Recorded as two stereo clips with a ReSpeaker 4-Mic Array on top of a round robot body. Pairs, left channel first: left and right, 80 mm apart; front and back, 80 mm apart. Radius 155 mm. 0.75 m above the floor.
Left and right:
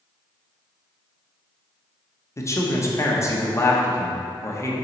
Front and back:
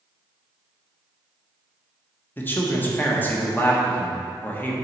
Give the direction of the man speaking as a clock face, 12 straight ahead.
10 o'clock.